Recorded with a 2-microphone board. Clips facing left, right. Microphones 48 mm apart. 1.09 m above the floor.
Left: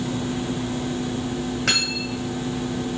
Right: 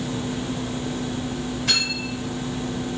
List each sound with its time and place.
1.7 s cutlery clinking: 80° left, 4 m